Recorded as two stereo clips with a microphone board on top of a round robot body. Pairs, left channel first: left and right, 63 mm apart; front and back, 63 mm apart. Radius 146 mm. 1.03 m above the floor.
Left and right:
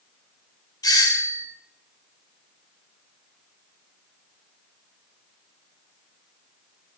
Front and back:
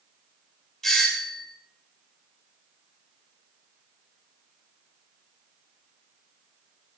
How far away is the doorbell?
About 3 m.